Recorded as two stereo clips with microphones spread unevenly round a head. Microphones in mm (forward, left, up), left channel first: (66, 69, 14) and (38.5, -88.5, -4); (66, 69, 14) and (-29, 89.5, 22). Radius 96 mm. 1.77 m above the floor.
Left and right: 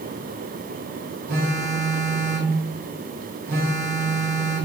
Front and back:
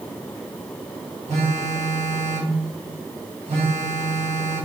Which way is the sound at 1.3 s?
150° right.